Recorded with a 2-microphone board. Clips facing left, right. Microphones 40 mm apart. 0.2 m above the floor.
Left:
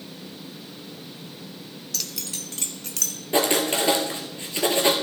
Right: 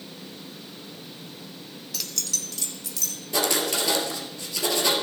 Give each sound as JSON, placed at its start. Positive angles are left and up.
{"t": 1.9, "sound": "keys jangling", "side_deg": -10, "distance_m": 0.7}
{"t": 3.3, "sound": "writing", "side_deg": 35, "distance_m": 1.8}